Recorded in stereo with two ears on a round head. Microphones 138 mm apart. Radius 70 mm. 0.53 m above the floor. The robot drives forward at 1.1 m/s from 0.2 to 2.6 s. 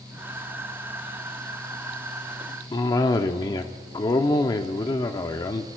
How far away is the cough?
About 0.7 m.